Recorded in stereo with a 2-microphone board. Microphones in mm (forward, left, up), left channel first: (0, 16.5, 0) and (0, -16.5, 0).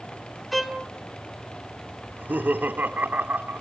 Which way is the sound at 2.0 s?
65° right (ahead or behind).